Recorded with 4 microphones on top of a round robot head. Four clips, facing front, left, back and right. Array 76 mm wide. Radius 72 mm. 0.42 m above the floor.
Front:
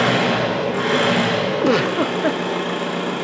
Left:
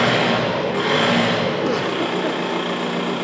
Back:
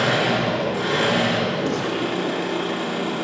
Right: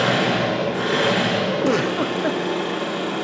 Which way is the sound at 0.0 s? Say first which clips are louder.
Left 2 dB, front 2 dB; 65° left.